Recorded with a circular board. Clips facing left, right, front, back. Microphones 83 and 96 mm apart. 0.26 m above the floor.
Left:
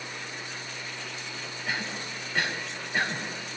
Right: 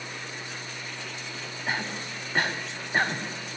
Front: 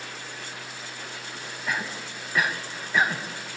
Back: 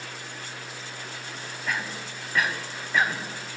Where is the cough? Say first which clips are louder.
Right 2 dB, front 1 dB; 85° right, 2.0 m.